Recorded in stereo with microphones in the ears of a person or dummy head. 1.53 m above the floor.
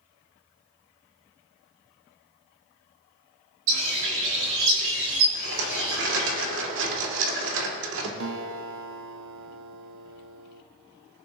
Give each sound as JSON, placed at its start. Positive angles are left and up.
{"t": 3.7, "sound": "a bird", "side_deg": -75, "distance_m": 3.5}
{"t": 5.3, "sound": "a rattle", "side_deg": -70, "distance_m": 2.0}
{"t": 8.2, "sound": "a guitar", "side_deg": -70, "distance_m": 1.0}